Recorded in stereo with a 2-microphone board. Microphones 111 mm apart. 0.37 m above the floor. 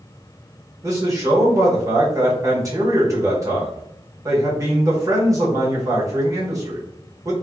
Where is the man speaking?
30° right (ahead or behind), 1.0 m.